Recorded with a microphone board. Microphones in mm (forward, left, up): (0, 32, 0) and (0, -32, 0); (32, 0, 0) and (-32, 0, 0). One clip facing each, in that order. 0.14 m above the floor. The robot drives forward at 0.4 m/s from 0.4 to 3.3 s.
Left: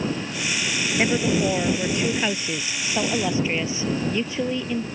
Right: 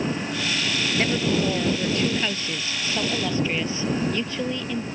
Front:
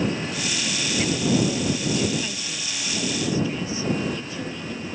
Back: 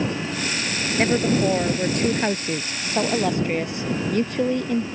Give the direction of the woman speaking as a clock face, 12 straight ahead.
7 o'clock.